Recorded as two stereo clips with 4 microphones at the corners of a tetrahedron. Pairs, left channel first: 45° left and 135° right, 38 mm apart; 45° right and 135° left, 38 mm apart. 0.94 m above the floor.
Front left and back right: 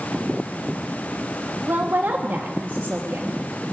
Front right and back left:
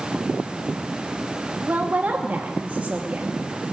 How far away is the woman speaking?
About 1.0 m.